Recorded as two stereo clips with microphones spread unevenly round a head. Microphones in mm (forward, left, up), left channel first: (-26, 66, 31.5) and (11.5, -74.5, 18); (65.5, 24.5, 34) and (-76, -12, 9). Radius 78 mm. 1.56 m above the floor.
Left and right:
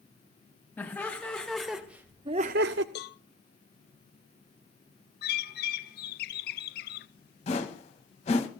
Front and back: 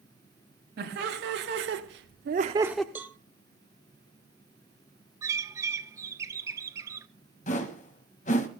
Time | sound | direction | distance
0.8 | laughter | 175° right | 2.5 m
3.0 | a cowbell | 120° left | 0.8 m
5.2 | a bird | 125° left | 0.9 m
7.5 | a whoosh | 55° left | 2.0 m